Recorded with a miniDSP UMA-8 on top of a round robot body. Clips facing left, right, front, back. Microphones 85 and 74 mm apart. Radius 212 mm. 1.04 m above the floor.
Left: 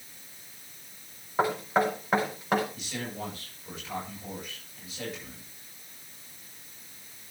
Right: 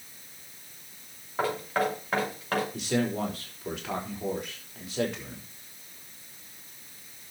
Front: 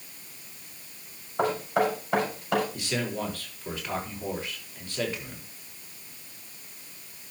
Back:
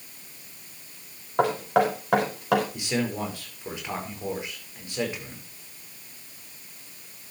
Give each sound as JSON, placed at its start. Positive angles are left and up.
{"t": 1.4, "sound": "knocking", "azimuth_deg": 165, "distance_m": 5.5}
{"t": 2.7, "sound": "a man speaking", "azimuth_deg": -105, "distance_m": 5.0}